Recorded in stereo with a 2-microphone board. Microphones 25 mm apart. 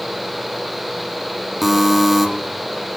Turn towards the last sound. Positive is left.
turn(degrees=-5)  # may be behind; listen again after turning